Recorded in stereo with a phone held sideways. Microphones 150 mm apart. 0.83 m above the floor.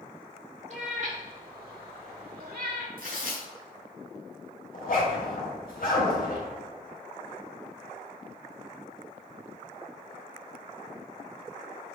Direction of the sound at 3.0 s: 80° right.